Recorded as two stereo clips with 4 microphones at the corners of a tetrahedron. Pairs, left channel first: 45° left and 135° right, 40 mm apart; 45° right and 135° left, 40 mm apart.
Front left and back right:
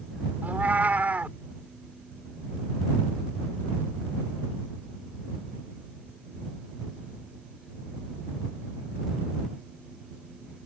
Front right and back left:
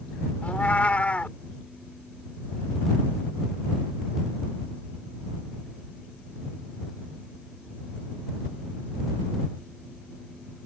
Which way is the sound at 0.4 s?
95° right.